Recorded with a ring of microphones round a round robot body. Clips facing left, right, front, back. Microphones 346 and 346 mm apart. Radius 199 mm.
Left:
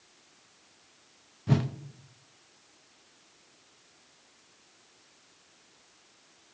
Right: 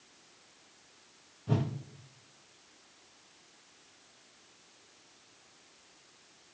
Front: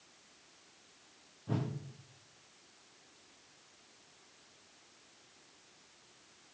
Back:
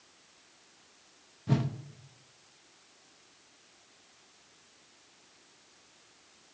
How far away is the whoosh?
About 0.7 m.